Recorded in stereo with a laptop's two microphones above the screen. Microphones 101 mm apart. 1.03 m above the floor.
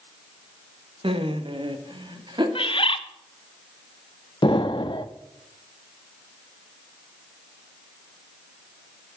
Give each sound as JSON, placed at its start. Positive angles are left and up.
{"t": 1.0, "sound": "laughter", "side_deg": -65, "distance_m": 1.4}
{"t": 2.5, "sound": "a bird", "side_deg": 60, "distance_m": 0.9}
{"t": 4.4, "sound": "an explosion", "side_deg": 50, "distance_m": 0.8}